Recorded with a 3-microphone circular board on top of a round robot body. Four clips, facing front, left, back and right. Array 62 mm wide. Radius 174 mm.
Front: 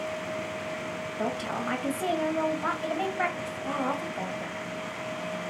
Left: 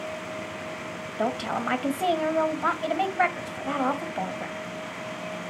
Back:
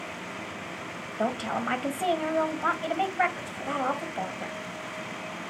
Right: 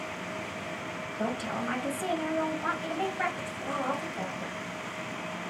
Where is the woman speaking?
115° left, 1.8 m.